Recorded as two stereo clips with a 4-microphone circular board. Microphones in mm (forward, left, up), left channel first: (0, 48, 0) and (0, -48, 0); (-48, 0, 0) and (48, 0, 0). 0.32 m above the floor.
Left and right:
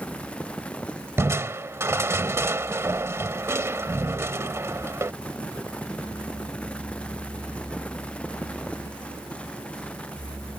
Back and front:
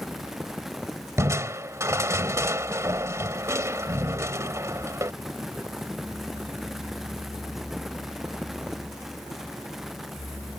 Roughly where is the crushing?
Ahead right.